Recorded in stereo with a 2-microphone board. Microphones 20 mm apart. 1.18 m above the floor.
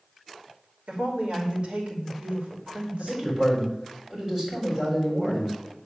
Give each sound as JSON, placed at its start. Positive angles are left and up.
{"t": 0.9, "sound": "a woman speaking", "side_deg": -65, "distance_m": 2.5}
{"t": 3.0, "sound": "a man speaking", "side_deg": -15, "distance_m": 3.5}